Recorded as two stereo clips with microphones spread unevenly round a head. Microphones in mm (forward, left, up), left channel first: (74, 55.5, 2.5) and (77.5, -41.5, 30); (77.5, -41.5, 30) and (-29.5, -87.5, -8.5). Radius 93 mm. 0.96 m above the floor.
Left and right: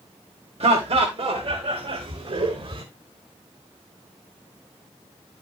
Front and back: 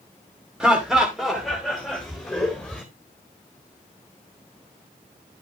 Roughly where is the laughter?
Right.